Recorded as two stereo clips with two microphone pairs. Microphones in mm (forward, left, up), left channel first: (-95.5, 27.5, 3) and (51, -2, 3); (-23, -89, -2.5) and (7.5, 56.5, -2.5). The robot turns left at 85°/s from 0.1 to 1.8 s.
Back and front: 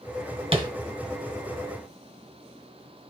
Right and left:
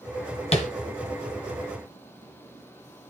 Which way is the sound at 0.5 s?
60° right.